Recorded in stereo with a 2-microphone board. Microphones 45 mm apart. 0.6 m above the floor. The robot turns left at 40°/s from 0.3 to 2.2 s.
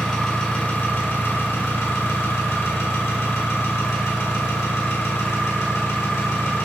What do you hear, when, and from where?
0.0 s an engine running: 160° left, 1.0 m; by 6.7 s 85° left, 1.0 m